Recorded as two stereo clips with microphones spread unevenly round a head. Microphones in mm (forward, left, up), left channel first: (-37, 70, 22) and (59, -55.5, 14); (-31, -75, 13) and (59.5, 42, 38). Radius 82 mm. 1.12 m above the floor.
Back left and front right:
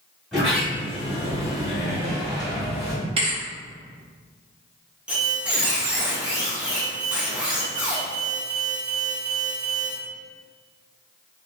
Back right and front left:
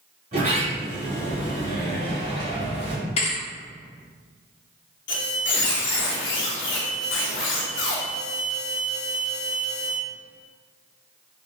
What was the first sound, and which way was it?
A sliding door, 40° left.